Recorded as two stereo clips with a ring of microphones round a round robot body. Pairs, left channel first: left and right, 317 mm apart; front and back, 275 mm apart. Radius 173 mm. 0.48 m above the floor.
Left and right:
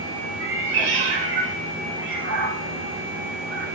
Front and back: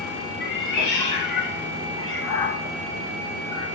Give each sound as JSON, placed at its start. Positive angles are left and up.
{"t": 0.4, "sound": "a cat meowing", "azimuth_deg": -35, "distance_m": 2.0}